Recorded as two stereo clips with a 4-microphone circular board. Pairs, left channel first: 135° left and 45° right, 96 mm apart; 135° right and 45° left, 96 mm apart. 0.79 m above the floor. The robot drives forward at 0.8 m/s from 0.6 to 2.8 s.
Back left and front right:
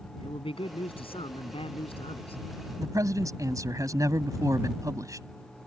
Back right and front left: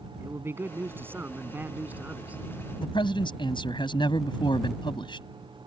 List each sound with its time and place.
0.2 s a man speaking: 110° left; by 2.4 s 120° left
2.8 s a man speaking: 100° right